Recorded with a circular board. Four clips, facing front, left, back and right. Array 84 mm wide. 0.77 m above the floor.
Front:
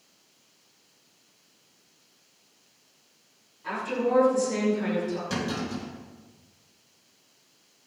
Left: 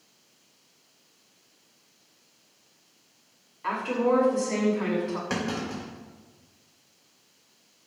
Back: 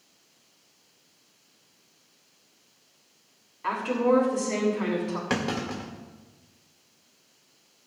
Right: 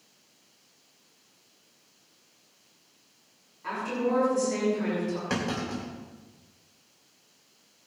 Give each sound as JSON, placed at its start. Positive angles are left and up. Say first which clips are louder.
{"t": 3.6, "sound": "a woman speaking", "louder": "left 4 dB, back 4 dB", "azimuth_deg": 150, "distance_m": 7.5}
{"t": 5.3, "sound": "a clunk", "louder": "even, back 2 dB", "azimuth_deg": 180, "distance_m": 3.0}